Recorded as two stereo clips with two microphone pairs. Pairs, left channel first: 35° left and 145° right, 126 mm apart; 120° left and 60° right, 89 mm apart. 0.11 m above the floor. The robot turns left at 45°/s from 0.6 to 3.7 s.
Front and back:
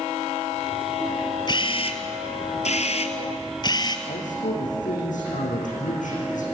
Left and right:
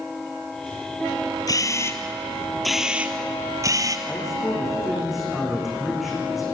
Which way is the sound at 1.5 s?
85° left.